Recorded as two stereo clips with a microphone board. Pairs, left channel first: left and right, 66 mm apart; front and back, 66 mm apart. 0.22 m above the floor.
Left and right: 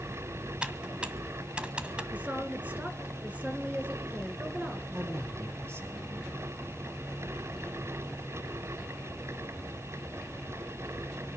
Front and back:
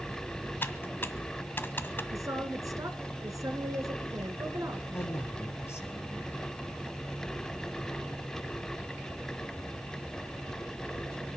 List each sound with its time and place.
0.6 s typing on a keyboard: 30° right, 1.3 m
2.1 s a woman speaking: 155° right, 2.5 m
4.9 s a man speaking: 45° right, 5 m